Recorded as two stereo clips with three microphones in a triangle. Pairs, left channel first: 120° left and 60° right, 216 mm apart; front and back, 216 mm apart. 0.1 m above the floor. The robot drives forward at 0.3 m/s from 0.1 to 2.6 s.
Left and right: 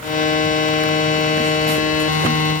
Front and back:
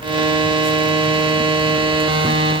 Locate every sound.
Only background noise.